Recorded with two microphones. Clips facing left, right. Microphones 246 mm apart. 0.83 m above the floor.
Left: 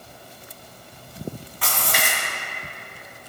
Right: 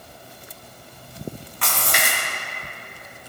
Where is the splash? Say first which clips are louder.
Right 1 dB; 5° left (ahead or behind), 3 m.